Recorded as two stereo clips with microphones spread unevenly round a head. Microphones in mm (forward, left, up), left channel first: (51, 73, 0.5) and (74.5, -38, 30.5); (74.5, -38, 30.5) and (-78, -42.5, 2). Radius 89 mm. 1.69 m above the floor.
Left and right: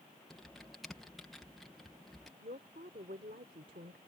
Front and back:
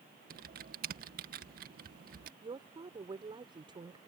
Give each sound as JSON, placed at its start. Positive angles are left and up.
{"t": 0.3, "sound": "typing on a keyboard", "azimuth_deg": -155}
{"t": 2.4, "sound": "a woman speaking", "azimuth_deg": -115}